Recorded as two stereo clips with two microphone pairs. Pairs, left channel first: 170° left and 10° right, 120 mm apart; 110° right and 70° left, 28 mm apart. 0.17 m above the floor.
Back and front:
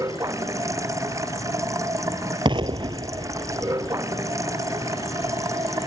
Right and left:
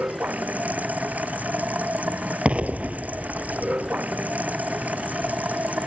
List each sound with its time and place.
0.0 s running water: 55° left
2.5 s an explosion: 35° left